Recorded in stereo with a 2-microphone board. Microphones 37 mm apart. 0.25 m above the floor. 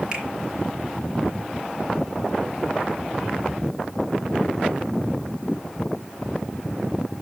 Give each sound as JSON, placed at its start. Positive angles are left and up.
{"t": 0.1, "sound": "a finger snap", "side_deg": -20, "distance_m": 4.5}